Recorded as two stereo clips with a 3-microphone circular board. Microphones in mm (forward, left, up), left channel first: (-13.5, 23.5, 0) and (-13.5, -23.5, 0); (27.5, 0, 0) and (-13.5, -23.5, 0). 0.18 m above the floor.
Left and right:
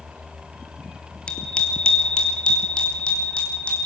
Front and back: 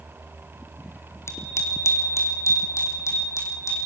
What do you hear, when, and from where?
1.3 s a bicycle bell: 25° left, 2.5 m